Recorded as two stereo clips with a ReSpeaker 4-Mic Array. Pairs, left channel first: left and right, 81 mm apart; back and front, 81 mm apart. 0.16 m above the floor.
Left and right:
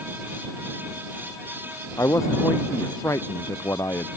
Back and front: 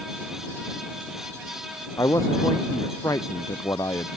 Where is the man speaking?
140° left.